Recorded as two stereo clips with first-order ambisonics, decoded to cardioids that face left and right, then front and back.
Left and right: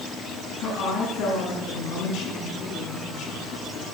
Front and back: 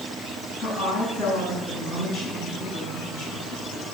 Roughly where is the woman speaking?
Ahead left.